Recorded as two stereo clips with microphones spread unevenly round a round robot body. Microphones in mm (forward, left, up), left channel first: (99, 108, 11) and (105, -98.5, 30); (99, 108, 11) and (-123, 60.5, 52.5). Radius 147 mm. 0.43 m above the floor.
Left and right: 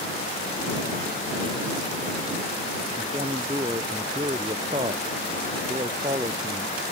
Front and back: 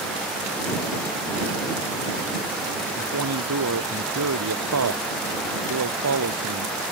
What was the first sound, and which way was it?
A man speaking, 160° right.